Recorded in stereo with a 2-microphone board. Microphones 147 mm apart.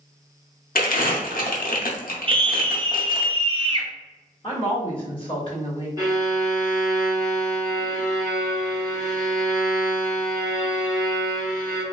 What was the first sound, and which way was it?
Crumpling, 80° left.